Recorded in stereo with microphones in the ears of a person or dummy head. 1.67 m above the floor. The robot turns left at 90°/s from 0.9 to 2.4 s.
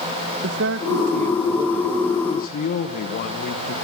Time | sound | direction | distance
0.4 | a man speaking | 100° right | 1.6 m